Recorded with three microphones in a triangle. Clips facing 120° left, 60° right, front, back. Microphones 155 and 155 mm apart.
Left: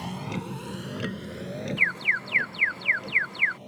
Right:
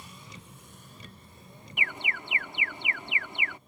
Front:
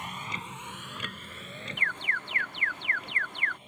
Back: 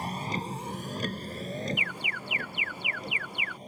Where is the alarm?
115° right.